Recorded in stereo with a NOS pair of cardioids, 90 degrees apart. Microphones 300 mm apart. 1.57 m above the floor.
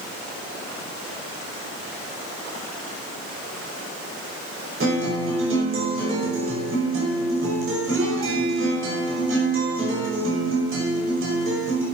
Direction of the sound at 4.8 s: 45° right.